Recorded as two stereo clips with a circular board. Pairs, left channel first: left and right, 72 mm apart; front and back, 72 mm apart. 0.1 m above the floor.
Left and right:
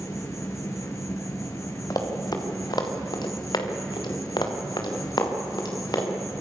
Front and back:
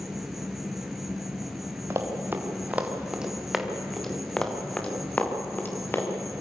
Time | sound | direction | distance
0.0 | an insect | 95° left | 3 m
1.9 | running footsteps | 125° left | 3.5 m